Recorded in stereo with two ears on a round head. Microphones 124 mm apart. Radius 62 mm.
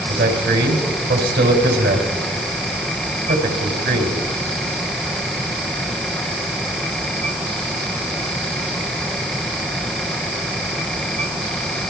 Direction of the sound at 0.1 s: 85° right.